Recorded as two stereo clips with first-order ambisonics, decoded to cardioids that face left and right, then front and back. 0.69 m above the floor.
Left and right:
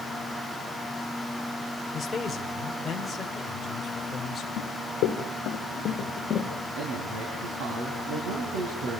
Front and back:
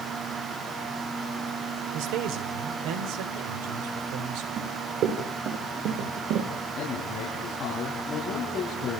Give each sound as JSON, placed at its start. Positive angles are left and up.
{"t": 1.9, "sound": "a man speaking", "azimuth_deg": 170, "distance_m": 2.5}
{"t": 4.6, "sound": "running footsteps", "azimuth_deg": 130, "distance_m": 3.5}
{"t": 6.8, "sound": "a man speaking", "azimuth_deg": -75, "distance_m": 5.5}